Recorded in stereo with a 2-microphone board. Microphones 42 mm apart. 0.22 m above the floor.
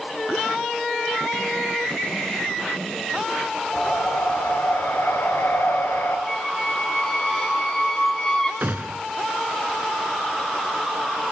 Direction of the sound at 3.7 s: 60° left (ahead or behind).